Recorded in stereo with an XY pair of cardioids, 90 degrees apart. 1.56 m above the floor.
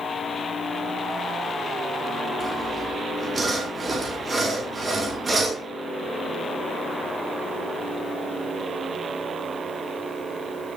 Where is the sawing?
30° right, 4.5 m.